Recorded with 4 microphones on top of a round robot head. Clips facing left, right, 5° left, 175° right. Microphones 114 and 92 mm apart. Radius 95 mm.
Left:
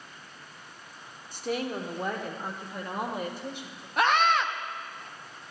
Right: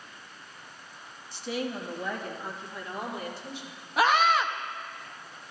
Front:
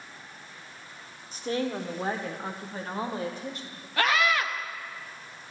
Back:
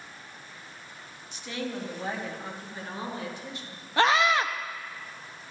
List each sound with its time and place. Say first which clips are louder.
1.3 s a woman speaking: left 2 dB, front 5 dB; 50° left, 1.2 m
4.0 s a scream: right 1 dB, back 3 dB; 175° right, 0.7 m